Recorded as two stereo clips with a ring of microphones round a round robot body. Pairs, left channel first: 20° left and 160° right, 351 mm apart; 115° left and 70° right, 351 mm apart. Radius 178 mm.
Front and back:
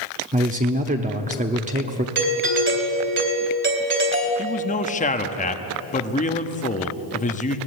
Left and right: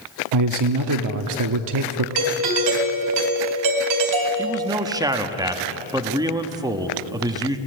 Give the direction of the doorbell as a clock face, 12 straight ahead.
3 o'clock.